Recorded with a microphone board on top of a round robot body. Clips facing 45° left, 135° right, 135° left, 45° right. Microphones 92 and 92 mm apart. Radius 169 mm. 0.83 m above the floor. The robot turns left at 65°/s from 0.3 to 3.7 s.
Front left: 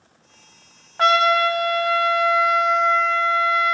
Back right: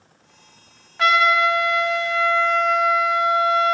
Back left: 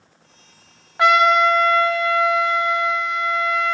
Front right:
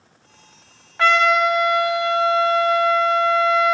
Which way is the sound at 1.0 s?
70° left.